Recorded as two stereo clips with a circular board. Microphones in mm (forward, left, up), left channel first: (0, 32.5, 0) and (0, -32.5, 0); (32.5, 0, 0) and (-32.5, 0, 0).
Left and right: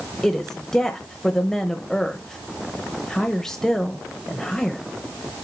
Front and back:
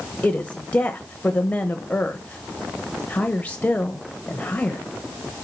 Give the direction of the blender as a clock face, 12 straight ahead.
No blender in this recording.